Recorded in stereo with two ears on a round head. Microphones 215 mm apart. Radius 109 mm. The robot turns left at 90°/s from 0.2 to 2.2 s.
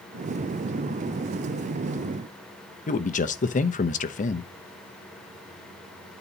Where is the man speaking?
35° left (ahead or behind), 0.9 m.